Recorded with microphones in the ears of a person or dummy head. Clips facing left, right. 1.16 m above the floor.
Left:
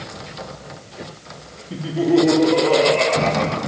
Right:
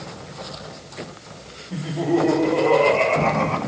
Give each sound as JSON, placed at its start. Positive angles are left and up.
{"t": 1.7, "sound": "laughter", "side_deg": 45, "distance_m": 2.5}